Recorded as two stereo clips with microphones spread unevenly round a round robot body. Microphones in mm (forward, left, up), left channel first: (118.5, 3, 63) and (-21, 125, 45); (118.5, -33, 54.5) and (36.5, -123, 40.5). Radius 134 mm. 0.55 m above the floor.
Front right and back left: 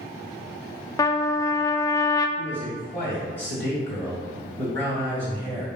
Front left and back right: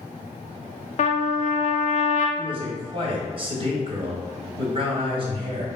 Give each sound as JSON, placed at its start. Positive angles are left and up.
{"t": 1.0, "sound": "a trumpet", "azimuth_deg": 35, "distance_m": 0.5}
{"t": 2.4, "sound": "a man speaking", "azimuth_deg": -125, "distance_m": 1.4}